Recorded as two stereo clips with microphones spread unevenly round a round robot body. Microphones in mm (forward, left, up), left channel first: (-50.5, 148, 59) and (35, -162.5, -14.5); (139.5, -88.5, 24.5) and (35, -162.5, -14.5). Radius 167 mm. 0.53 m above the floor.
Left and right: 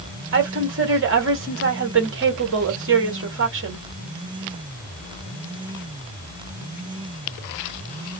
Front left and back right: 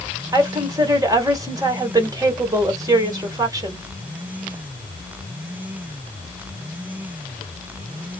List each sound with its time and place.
0.3 s a woman speaking: 105° right, 2 m